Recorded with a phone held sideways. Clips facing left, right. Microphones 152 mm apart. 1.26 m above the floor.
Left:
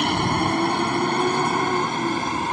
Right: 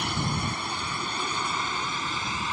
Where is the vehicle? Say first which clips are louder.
Left 9 dB; 70° left (ahead or behind); by 2.5 s 55° left (ahead or behind).